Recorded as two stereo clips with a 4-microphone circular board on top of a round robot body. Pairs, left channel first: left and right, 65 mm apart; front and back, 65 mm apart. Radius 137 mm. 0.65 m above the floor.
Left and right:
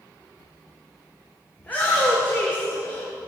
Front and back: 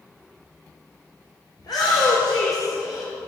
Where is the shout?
25° left, 3 m; by 3.1 s 35° left, 2 m.